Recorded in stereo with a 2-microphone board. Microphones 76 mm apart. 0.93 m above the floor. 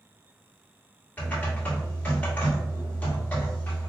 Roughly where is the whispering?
I don't hear whispering.